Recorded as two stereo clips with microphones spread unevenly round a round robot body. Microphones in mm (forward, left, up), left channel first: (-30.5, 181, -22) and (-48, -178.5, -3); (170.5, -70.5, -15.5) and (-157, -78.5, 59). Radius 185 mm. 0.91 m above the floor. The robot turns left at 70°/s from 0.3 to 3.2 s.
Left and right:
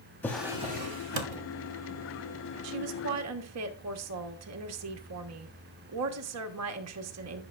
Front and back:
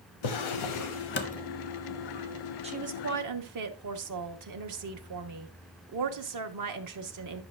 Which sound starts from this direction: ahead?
A drawer, at 0.2 s.